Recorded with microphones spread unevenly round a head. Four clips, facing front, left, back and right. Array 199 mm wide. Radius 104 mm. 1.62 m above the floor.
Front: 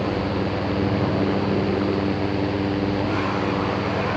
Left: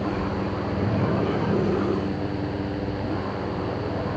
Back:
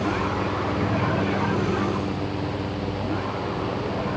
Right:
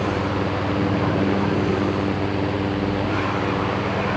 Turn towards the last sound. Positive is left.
No sound to turn to.